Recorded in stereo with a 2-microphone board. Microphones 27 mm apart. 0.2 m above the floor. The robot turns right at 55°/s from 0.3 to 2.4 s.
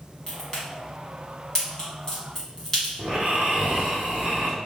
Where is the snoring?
65° right (ahead or behind), 1.2 m.